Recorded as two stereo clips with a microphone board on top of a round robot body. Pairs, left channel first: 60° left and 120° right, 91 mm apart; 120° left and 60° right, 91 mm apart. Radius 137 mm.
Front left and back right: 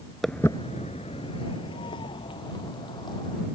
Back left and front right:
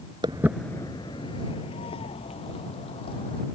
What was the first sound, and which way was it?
Footsteps, 30° right.